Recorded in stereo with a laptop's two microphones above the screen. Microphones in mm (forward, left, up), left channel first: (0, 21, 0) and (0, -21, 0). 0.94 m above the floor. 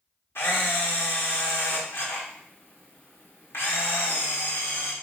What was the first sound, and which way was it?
A camera shutter, 70° left (ahead or behind).